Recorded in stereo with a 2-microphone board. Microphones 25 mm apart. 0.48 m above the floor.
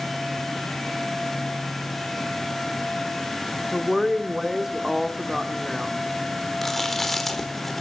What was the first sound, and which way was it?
A woman speaking, 10° right (ahead or behind).